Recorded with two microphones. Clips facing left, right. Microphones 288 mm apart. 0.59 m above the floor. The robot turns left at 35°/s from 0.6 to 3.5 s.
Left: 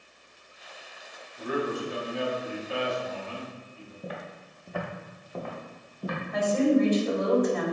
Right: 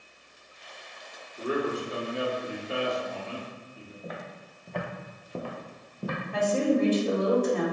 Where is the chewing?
I don't hear chewing.